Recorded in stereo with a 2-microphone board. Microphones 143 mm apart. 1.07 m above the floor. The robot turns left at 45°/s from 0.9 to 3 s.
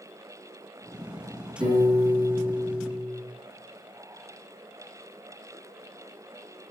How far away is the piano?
About 3.5 m.